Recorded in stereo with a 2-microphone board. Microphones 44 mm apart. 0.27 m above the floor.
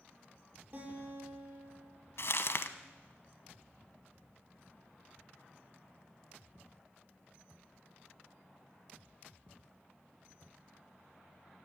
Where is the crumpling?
60° left (ahead or behind), 0.9 m.